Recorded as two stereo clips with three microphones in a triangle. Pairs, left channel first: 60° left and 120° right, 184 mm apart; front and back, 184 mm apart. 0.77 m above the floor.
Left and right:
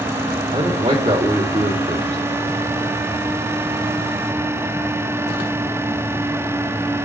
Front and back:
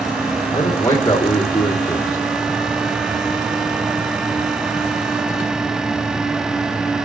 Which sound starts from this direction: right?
A man speaking, at 0.5 s.